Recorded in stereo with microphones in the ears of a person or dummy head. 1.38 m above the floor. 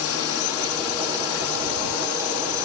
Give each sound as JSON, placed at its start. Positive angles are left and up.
{"t": 0.0, "sound": "a drone", "side_deg": 70}